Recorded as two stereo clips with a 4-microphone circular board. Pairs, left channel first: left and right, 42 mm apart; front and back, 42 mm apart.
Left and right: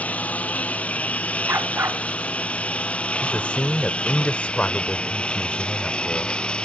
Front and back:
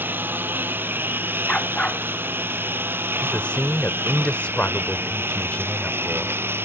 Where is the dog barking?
70° right.